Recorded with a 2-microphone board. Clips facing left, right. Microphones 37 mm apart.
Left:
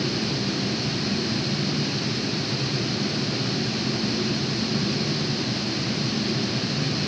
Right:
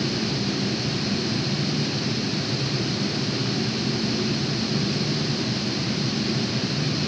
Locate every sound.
Only background noise.